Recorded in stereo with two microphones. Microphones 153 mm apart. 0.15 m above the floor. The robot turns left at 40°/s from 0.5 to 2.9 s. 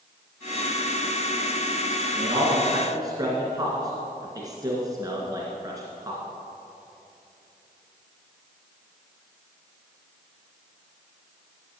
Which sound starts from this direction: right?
A man speaking, at 2.2 s.